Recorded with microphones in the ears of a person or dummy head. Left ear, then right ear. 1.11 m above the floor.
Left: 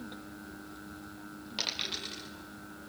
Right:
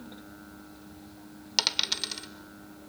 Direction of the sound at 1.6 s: 55° right (ahead or behind).